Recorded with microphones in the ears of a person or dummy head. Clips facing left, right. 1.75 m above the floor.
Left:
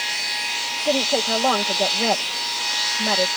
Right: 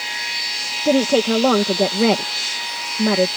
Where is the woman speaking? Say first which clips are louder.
Right 6 dB; 45° right (ahead or behind).